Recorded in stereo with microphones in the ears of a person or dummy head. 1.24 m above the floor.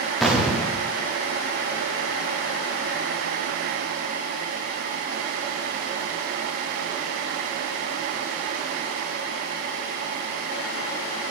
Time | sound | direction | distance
0.2 | an explosion | centre (ahead or behind) | 1.1 m